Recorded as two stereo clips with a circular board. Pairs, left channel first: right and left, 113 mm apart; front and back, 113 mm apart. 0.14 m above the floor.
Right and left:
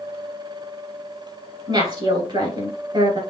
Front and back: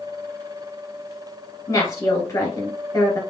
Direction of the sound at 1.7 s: 55° left.